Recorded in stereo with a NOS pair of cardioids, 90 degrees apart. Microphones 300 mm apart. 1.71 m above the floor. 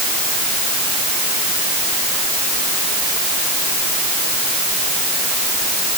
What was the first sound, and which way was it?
Only background noise.